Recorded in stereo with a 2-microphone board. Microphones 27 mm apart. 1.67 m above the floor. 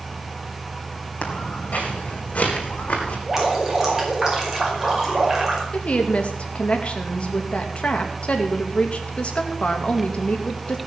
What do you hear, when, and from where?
1.2 s footsteps: 60° left (ahead or behind), 3.5 m; by 3.2 s 55° left (ahead or behind), 4 m
3.3 s dripping: 20° right (ahead or behind), 5 m
5.7 s a woman speaking: 45° left (ahead or behind), 2.5 m